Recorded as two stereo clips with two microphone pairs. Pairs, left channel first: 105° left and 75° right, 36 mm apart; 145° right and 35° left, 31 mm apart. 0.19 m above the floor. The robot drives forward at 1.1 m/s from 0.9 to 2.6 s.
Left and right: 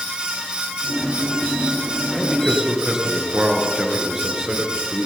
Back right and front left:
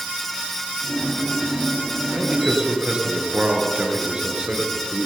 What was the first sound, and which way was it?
A man speaking, 5° right.